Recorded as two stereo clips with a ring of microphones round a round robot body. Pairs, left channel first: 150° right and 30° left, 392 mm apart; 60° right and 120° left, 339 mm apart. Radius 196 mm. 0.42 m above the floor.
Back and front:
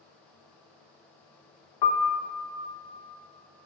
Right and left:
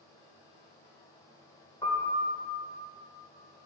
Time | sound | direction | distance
1.8 | a piano | 135° right | 0.5 m